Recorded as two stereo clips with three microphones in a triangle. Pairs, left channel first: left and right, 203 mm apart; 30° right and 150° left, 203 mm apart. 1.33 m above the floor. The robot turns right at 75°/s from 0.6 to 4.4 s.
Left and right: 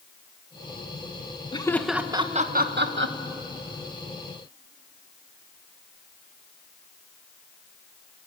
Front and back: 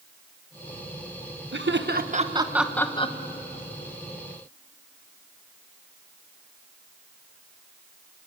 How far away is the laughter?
About 1.3 m.